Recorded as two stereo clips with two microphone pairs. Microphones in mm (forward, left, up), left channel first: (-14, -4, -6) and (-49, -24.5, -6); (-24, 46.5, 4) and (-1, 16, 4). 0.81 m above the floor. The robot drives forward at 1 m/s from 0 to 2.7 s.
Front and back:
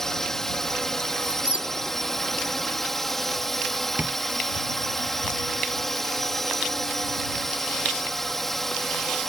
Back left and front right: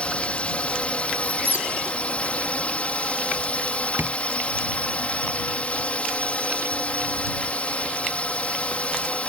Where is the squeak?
85° right; by 1.7 s 95° right.